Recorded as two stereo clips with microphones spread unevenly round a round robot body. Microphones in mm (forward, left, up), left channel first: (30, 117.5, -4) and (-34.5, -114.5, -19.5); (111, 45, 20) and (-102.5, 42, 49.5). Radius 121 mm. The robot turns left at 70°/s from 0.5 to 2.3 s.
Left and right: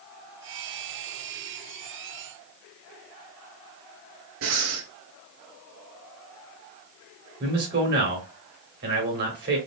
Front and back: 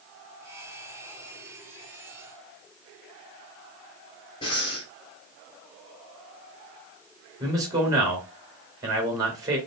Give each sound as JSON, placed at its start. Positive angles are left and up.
{"t": 4.4, "sound": "breathing", "azimuth_deg": -70, "distance_m": 1.0}
{"t": 7.4, "sound": "a man speaking", "azimuth_deg": -105, "distance_m": 1.8}